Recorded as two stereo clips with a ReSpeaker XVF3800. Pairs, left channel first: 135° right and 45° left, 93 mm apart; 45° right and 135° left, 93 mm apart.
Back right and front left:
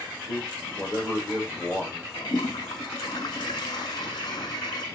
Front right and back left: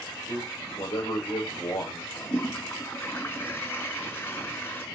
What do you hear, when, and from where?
0.3 s a man speaking: 85° right, 9 m
2.1 s a toilet flushing: 110° right, 1.8 m